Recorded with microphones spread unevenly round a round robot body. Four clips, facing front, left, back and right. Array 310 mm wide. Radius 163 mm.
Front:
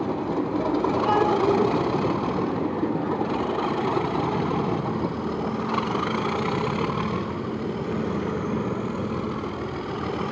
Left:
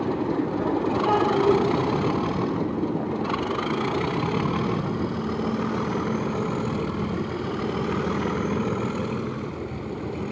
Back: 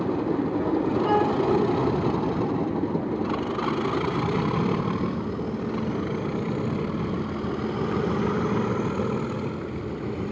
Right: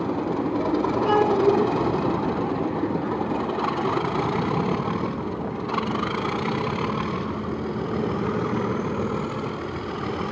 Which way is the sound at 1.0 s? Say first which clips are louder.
Right 1 dB, front 2 dB; 130° right.